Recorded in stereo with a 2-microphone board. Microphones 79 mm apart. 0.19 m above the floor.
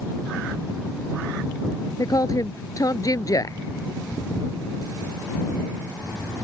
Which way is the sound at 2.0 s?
50° left (ahead or behind).